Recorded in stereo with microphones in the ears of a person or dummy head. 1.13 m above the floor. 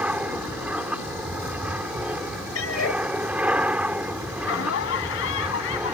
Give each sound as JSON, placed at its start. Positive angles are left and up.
{"t": 0.0, "sound": "an aircraft", "side_deg": -5}
{"t": 2.5, "sound": "a cat meowing", "side_deg": 85}
{"t": 4.4, "sound": "laughter", "side_deg": 70}